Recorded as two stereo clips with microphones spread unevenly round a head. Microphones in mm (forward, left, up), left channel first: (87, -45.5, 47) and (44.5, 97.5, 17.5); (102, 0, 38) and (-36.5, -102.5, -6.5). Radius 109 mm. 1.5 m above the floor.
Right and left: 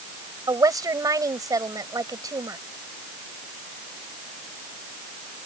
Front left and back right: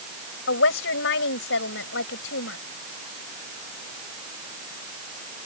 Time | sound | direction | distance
0.5 | a woman speaking | 40° left | ?